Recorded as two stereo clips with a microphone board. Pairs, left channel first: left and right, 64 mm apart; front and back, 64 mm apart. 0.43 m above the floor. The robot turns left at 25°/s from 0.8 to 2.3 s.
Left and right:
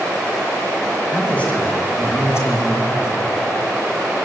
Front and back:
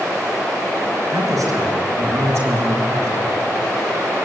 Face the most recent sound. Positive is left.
turn(degrees=135)